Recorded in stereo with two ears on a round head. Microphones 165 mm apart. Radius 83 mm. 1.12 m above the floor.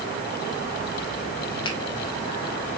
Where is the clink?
I don't hear a clink.